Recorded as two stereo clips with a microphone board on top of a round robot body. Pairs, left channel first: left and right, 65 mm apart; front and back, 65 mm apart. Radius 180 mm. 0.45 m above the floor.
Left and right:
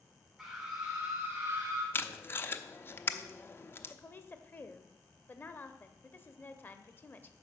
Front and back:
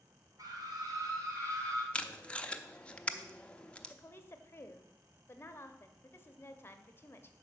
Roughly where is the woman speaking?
Ahead left.